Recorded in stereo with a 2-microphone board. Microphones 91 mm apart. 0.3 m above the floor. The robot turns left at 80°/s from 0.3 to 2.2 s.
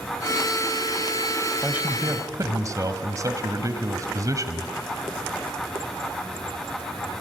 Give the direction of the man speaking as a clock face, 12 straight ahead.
1 o'clock.